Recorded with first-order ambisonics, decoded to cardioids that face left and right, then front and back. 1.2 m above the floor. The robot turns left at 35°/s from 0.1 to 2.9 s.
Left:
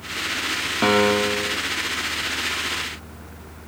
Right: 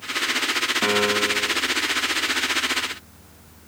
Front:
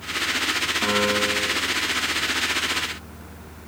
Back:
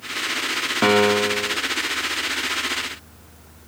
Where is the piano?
150° left, 0.8 m; by 1.6 s 120° left, 0.8 m.